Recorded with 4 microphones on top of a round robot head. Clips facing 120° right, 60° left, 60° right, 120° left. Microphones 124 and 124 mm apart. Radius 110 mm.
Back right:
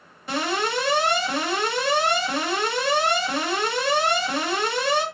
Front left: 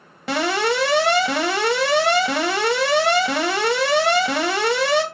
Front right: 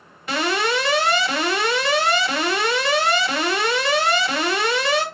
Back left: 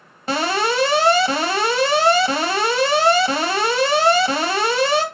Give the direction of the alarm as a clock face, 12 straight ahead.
10 o'clock.